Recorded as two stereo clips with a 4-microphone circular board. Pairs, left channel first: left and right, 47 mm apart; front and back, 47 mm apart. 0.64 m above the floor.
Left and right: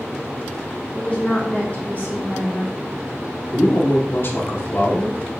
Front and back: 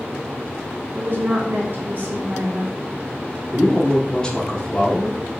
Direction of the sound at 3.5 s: 65° left.